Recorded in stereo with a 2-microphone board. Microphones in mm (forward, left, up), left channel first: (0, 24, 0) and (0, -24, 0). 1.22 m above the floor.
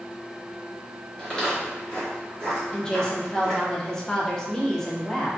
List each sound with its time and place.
1.2 s footsteps: 15° left (ahead or behind), 1.2 m; by 3.6 s 10° left (ahead or behind), 1.7 m
2.7 s a woman speaking: 15° left (ahead or behind), 0.6 m